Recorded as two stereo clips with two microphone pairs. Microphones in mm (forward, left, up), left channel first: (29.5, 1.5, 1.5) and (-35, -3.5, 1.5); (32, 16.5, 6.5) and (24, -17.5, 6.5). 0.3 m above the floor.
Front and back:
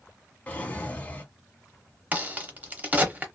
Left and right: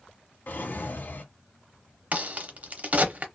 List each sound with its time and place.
0.5 s a drawer: 70° left, 0.7 m
2.1 s a crack: 120° right, 0.6 m